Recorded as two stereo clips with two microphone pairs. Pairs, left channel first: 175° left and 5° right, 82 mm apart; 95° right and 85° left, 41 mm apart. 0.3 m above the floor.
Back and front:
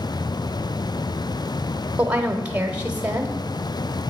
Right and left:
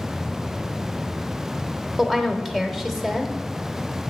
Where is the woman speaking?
30° right, 0.9 m.